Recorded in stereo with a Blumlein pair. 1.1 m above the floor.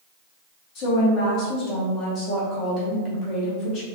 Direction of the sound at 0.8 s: 35° left.